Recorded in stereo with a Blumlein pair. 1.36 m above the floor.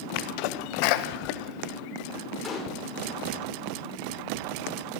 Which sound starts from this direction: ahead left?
A sneeze, at 0.1 s.